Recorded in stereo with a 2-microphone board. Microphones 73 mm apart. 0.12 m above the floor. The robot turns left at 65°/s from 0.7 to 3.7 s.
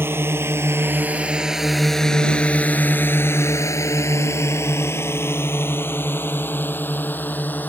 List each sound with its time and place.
0.0 s a drone: 35° right (ahead or behind); by 7.7 s 25° left (ahead or behind)